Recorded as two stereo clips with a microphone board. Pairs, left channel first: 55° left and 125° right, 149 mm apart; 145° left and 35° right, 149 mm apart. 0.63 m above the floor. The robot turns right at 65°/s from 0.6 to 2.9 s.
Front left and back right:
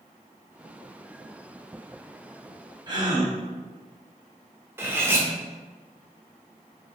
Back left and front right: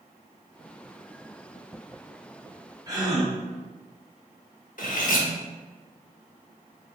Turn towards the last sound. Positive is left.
turn(degrees=160)